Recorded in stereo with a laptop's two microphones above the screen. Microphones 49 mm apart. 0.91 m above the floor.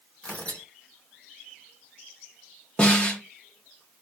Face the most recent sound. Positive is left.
turn(degrees=25)  # may be behind; listen again after turning